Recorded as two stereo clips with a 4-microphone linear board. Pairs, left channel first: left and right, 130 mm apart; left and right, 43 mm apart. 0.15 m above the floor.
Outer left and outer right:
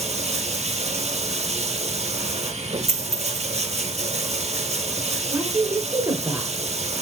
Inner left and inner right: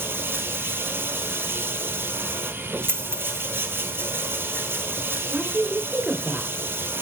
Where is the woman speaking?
20° right (ahead or behind), 1.9 m.